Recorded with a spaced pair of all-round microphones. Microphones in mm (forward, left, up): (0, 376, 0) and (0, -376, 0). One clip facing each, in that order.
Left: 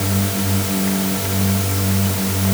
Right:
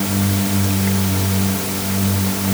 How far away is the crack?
No crack in this recording.